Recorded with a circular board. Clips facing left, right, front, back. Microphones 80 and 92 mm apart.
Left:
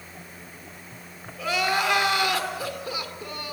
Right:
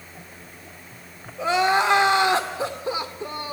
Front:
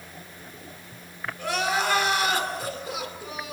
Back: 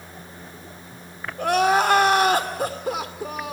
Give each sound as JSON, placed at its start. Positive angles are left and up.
{"t": 1.4, "sound": "crying", "azimuth_deg": -145, "distance_m": 2.0}